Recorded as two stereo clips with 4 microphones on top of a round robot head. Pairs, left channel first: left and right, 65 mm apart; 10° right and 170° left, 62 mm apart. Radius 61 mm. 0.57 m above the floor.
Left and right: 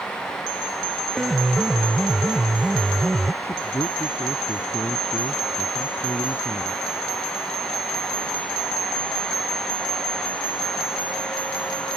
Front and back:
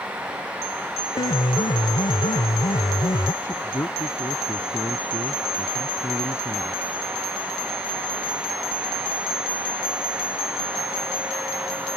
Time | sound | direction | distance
1.1 | a piano | 5° right | ?
3.4 | a man speaking | 30° left | ?